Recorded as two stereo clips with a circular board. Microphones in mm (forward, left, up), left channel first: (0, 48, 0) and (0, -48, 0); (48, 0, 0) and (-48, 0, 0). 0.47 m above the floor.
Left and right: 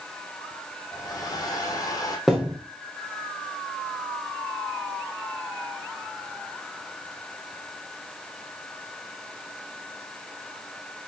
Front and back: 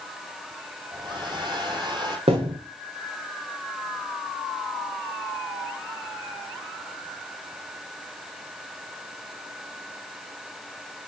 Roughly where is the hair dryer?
Behind left.